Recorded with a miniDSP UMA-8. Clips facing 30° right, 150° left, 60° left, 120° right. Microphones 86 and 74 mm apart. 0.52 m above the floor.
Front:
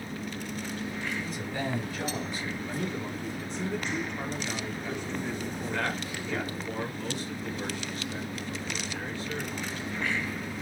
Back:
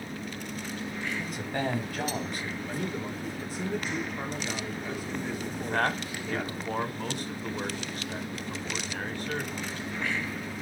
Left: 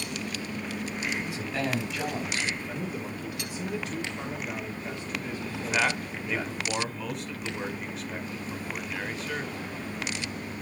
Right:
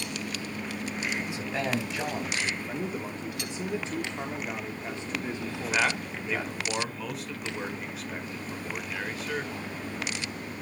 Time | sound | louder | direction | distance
1.2 | a man speaking | back 2 dB, even | 175° left | 3.5 m
2.6 | a man speaking | back 1 dB, right 1 dB | 140° right | 1.2 m
5.5 | a man speaking | back 6 dB, left 1 dB | 150° left | 1.8 m